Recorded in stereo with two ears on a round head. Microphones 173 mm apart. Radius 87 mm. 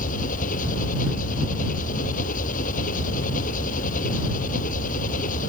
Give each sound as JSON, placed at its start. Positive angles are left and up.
{"t": 0.0, "sound": "an engine running", "side_deg": 45}